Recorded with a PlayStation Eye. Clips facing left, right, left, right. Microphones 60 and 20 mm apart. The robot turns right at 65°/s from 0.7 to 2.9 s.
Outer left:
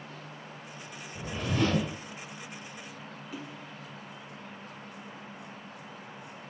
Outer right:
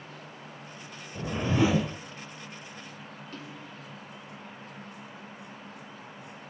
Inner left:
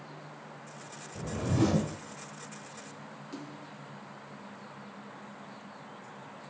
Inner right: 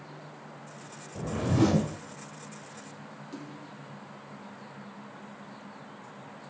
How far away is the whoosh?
About 0.5 m.